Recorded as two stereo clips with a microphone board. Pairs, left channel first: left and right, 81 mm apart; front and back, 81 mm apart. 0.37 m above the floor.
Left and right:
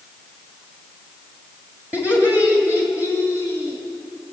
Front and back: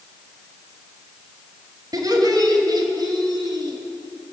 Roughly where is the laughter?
Behind right.